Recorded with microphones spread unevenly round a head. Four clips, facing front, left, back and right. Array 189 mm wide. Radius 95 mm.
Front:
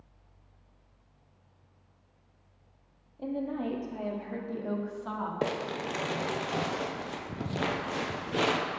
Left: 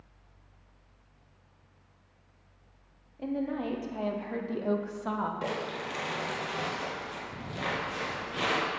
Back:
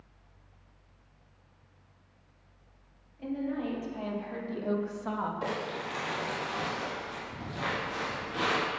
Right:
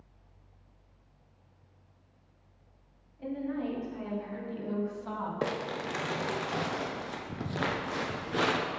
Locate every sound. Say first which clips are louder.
3.2 s a woman speaking: left 2 dB, even; 55° left, 1.2 m; by 5.3 s 120° left, 0.9 m
5.4 s crumpling: right 1 dB, front 2 dB; 15° right, 0.6 m